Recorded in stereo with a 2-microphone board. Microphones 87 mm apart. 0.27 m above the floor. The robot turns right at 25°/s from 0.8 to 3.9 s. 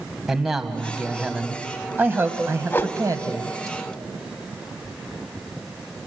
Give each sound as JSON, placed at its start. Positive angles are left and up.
{"t": 0.3, "sound": "a man speaking", "azimuth_deg": -175, "distance_m": 1.7}
{"t": 2.7, "sound": "a whoosh", "side_deg": 25, "distance_m": 0.6}